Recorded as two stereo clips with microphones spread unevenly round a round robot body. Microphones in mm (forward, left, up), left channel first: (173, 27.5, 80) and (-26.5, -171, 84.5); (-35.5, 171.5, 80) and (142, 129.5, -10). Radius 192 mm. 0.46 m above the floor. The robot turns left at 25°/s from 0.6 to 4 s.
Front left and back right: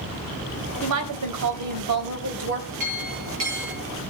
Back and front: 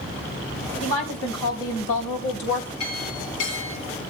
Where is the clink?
170° right, 9.5 m; by 3.8 s 165° left, 9.5 m.